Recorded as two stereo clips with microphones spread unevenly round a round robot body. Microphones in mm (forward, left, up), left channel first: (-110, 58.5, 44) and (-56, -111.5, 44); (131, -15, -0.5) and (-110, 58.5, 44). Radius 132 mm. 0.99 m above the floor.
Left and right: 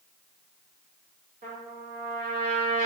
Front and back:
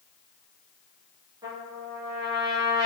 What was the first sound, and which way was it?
A trumpet, 115° right.